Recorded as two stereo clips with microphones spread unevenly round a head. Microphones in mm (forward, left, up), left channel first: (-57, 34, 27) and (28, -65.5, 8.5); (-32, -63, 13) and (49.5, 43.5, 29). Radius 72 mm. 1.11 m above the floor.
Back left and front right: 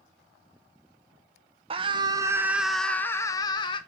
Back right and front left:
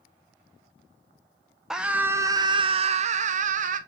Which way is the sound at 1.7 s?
40° right.